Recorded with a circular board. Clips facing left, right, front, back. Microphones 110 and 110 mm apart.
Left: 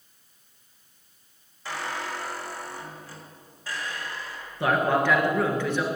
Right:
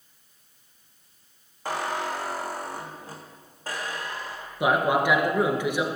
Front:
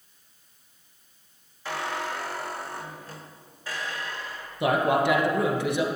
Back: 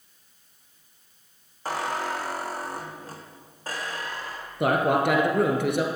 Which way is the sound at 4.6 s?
165° right.